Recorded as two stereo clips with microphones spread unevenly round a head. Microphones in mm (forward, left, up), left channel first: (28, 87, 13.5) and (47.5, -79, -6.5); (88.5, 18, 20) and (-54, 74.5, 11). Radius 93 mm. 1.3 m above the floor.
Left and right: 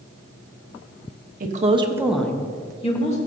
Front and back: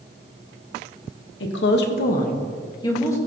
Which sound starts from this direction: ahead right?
A woman speaking, at 1.4 s.